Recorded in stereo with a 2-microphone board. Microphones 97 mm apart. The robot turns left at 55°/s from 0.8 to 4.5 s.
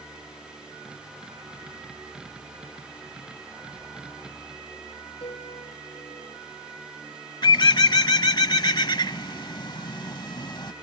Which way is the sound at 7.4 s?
50° left (ahead or behind).